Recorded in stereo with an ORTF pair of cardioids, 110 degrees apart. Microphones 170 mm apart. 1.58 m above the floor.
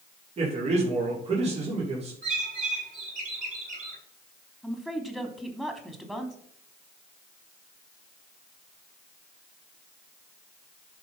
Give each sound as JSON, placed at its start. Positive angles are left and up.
{"t": 0.4, "sound": "a man speaking", "azimuth_deg": -40, "distance_m": 5.0}
{"t": 2.2, "sound": "a bird", "azimuth_deg": -50, "distance_m": 7.0}
{"t": 4.6, "sound": "a woman speaking", "azimuth_deg": 0, "distance_m": 3.0}